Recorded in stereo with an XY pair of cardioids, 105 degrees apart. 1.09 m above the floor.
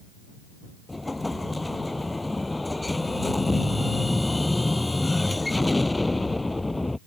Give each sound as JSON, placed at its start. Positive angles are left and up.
{"t": 0.9, "sound": "an explosion", "azimuth_deg": 15}